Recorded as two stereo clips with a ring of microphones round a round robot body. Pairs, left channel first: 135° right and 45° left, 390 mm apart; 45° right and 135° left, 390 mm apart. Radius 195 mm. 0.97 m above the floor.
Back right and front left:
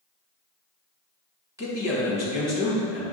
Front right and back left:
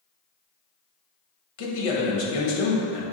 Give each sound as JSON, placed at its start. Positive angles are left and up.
{"t": 1.6, "sound": "a man speaking", "azimuth_deg": -35, "distance_m": 1.2}